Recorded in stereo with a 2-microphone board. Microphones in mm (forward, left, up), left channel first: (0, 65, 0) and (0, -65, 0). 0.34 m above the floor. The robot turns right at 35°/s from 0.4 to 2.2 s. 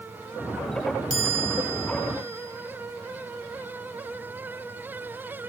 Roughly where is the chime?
Ahead right.